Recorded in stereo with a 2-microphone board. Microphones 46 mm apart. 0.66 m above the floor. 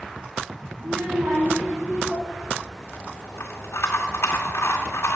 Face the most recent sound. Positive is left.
turn(degrees=80)